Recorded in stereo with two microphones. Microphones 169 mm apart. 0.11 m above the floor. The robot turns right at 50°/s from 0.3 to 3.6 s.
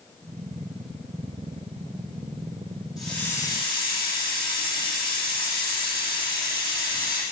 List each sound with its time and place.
3.0 s a hiss: 5° right, 4.5 m; by 7.2 s 30° left, 4.5 m